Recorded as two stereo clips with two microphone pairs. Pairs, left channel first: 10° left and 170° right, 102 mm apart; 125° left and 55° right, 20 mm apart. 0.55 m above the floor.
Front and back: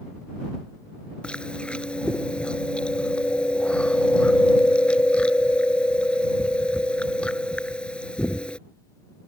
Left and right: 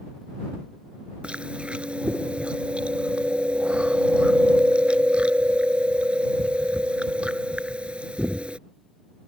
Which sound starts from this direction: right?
Chewing, at 1.2 s.